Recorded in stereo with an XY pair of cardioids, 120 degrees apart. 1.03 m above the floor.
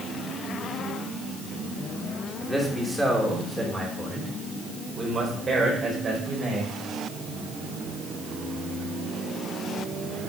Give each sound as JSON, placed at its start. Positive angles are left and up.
{"t": 2.4, "sound": "a man speaking", "azimuth_deg": 0, "distance_m": 3.0}